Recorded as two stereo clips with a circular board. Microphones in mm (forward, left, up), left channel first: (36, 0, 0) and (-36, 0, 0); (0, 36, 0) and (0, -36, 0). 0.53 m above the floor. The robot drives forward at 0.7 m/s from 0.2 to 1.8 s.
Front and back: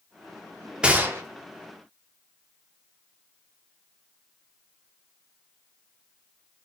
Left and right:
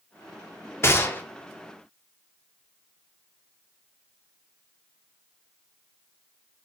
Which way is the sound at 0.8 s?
110° left.